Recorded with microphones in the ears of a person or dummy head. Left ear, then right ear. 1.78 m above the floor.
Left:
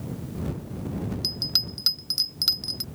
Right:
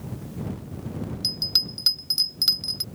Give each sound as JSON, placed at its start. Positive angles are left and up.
{"t": 1.2, "sound": "a bell", "side_deg": -10}